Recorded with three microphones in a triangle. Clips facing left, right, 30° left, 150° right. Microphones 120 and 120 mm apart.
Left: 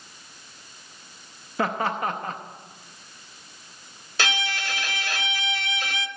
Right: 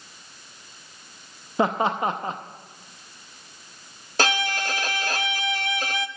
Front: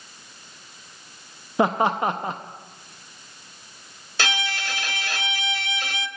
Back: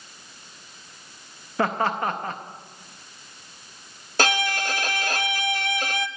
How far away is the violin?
About 0.7 m.